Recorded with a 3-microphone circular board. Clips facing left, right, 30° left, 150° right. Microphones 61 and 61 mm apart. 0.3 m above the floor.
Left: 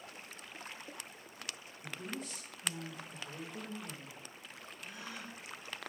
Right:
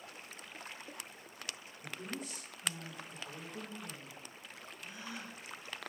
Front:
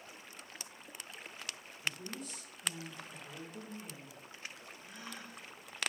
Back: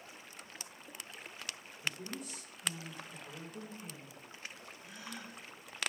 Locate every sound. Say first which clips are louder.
1.8 s a woman speaking: even, even; 120° right, 0.9 m; by 4.3 s 40° left, 1.3 m
4.8 s a gasp: even, back 1 dB; 70° left, 1.2 m